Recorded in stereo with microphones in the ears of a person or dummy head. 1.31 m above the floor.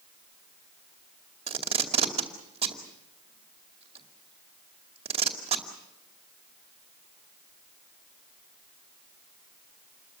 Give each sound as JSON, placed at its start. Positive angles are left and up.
{"t": 1.5, "sound": "tape being pulled", "side_deg": -35, "distance_m": 2.5}